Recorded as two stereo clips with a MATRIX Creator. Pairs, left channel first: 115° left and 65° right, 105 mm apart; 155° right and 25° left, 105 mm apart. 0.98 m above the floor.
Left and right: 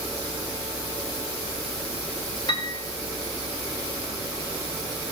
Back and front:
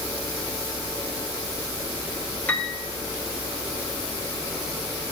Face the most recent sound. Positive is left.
turn(degrees=135)